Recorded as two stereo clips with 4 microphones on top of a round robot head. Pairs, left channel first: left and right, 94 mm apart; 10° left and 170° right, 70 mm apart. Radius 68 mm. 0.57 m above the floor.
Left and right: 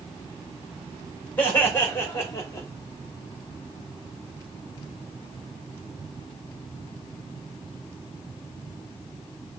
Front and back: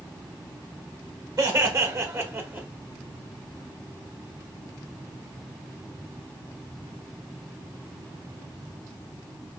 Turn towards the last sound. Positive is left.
turn(degrees=135)